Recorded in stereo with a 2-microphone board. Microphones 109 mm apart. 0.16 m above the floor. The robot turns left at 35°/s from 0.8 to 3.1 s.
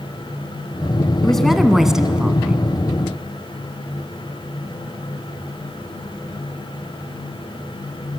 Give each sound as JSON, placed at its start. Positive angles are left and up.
{"t": 1.2, "sound": "a woman speaking", "side_deg": 5, "distance_m": 1.2}